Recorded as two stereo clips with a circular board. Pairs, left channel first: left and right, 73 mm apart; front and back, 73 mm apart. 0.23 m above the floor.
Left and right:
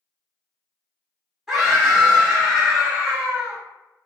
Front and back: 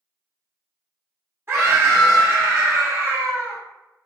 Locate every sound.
1.5 s a scream: 170° right, 1.5 m